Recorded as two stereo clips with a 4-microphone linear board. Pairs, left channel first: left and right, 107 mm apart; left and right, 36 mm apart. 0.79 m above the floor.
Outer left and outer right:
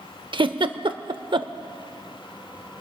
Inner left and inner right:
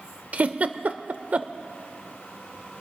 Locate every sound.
0.3 s a giggle: 50° right (ahead or behind), 0.6 m